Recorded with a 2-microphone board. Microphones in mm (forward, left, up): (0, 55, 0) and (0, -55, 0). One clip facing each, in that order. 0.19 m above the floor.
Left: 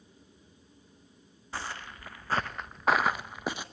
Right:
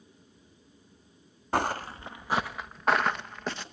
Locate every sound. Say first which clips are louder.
1.5 s footsteps: right 11 dB; 60° right (ahead or behind), 0.7 m; by 3.6 s 10° left (ahead or behind), 1.8 m